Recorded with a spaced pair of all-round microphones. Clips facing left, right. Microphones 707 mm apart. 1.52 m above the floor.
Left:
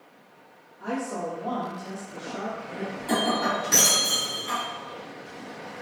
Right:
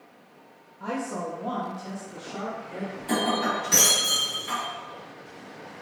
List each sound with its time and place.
0.8 s a woman speaking: 15° right (ahead or behind), 0.5 m; by 2.9 s 80° right, 1.2 m
3.0 s breaking glass: 15° right (ahead or behind), 1.6 m